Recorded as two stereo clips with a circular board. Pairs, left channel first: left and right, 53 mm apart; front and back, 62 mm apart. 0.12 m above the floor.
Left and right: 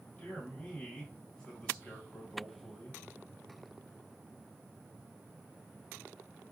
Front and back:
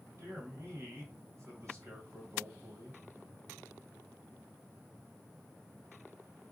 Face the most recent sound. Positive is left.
turn(degrees=160)